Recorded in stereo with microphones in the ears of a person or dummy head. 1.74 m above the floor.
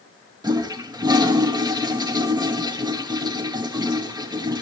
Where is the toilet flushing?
20° right (ahead or behind), 0.8 m.